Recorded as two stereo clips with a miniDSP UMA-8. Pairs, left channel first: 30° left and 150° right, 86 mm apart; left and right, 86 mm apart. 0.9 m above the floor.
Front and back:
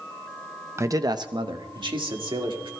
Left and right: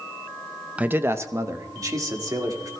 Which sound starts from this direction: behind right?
A man speaking, at 0.8 s.